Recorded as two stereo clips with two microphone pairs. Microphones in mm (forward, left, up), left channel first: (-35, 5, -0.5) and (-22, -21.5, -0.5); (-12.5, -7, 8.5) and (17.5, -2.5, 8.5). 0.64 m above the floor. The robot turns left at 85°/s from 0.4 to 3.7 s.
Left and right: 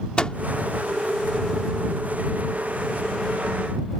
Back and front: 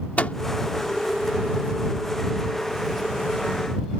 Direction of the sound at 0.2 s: 170° left.